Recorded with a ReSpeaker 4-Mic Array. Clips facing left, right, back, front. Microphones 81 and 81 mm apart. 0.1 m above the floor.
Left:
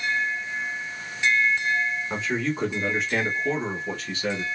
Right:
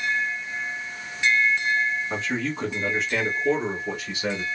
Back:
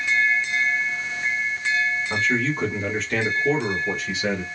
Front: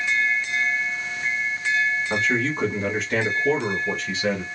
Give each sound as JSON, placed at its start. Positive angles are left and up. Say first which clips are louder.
{"t": 2.1, "sound": "a man speaking", "louder": "left 1 dB, even", "azimuth_deg": 40, "distance_m": 1.6}